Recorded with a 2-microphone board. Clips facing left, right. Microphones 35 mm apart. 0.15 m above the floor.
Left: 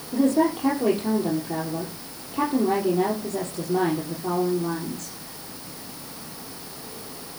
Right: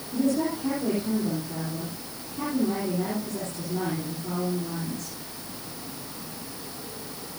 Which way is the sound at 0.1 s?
60° left (ahead or behind).